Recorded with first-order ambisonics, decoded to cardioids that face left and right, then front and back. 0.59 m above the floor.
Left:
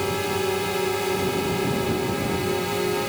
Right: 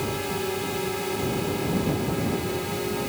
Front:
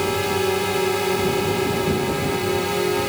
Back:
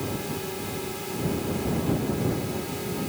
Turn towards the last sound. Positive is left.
turn(degrees=30)